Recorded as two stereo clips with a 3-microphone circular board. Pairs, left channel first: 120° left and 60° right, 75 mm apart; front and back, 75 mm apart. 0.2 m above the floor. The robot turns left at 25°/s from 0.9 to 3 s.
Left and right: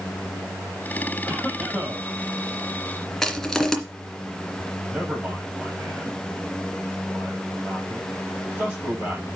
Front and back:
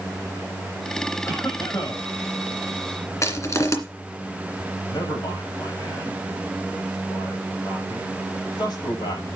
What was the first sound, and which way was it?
A cough, 50° left.